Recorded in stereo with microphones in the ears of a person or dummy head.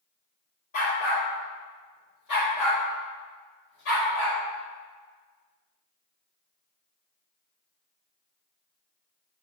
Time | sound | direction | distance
0.7 | a dog barking | 40° left (ahead or behind) | 1.6 m